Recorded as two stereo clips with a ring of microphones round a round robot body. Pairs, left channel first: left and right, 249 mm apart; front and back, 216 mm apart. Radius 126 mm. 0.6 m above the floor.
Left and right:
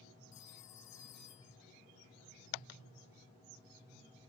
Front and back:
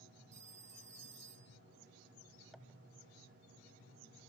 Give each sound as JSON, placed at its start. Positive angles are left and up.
{"t": 0.3, "sound": "a phone ringing", "azimuth_deg": 120}